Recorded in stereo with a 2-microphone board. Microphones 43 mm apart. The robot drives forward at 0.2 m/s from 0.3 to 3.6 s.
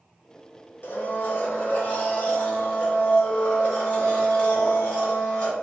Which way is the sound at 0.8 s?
55° left (ahead or behind).